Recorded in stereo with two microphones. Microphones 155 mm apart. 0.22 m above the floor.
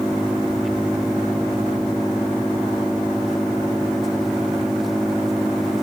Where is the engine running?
Centre (ahead or behind).